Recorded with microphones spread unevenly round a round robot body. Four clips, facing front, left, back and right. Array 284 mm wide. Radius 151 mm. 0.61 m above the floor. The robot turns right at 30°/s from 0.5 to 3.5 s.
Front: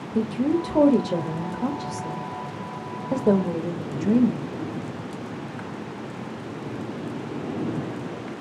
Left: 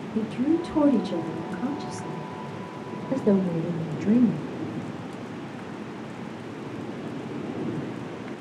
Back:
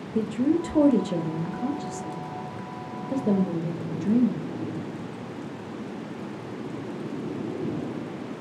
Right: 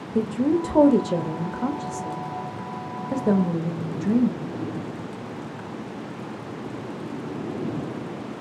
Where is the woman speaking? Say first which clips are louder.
Right 2 dB, front 1 dB; 80° right, 0.6 m; by 4.5 s 10° left, 0.6 m.